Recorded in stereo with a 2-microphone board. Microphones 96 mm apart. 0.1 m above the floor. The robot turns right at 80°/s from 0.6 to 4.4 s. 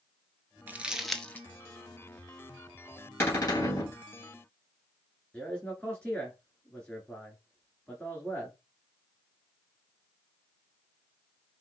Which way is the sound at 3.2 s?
25° left.